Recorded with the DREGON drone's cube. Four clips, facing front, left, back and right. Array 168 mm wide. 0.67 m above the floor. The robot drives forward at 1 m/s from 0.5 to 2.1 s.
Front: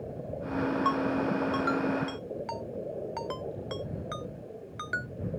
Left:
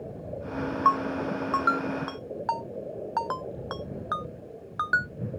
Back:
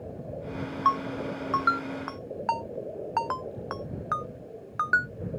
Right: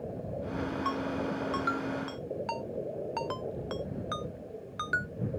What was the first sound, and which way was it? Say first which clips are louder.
A ringtone: left 11 dB, back 6 dB; 125° left.